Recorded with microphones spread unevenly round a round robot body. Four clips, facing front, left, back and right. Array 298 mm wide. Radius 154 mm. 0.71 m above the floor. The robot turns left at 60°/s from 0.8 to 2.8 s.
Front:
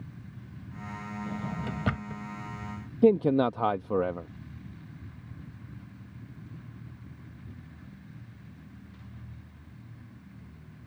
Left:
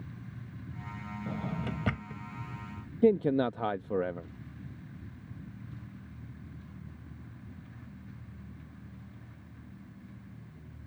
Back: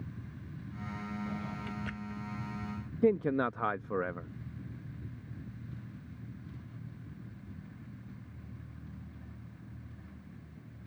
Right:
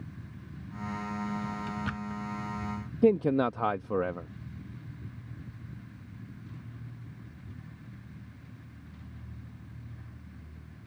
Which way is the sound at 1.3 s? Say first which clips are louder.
Right 1 dB, front 4 dB; 65° left.